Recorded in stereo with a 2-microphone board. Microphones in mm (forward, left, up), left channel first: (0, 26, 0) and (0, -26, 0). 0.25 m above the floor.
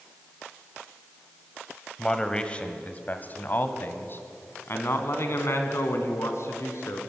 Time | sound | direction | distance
2.0 | a man speaking | 15° left (ahead or behind) | 1.3 m